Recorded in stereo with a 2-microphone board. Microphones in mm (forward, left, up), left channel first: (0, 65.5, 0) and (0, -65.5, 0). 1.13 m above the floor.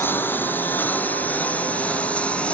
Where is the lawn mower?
15° left (ahead or behind); by 2.6 s 10° left (ahead or behind).